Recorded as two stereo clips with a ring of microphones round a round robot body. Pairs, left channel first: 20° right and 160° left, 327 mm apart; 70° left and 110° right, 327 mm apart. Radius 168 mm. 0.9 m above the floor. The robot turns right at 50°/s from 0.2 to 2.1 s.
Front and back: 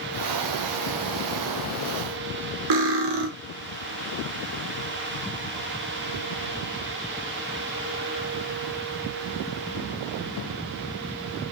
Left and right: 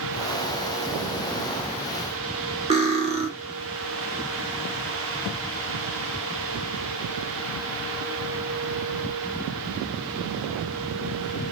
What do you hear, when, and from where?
2.7 s cutlery clinking: 175° left, 0.9 m